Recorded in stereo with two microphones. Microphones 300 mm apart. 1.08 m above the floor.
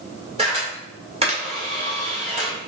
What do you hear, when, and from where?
0.4 s a camera shutter: 20° right (ahead or behind), 1.7 m